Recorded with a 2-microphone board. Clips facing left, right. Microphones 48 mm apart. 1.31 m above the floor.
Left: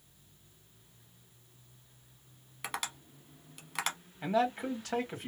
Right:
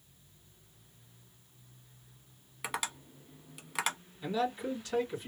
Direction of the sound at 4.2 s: 70° left (ahead or behind).